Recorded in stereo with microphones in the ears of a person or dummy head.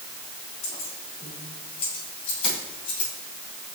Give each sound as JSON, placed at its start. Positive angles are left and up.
{"t": 0.6, "sound": "keys jangling", "side_deg": 40, "distance_m": 6.5}